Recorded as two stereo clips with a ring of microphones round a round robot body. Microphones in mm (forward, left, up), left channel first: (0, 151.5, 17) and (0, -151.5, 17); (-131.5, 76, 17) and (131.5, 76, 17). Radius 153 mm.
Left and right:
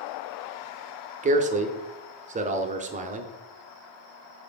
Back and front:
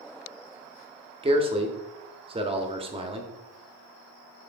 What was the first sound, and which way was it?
A man speaking, 50° right.